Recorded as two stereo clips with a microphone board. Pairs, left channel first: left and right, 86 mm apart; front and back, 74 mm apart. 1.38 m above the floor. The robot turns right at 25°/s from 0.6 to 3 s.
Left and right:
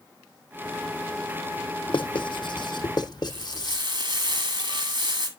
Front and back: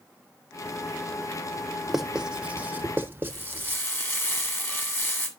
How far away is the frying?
About 2.0 m.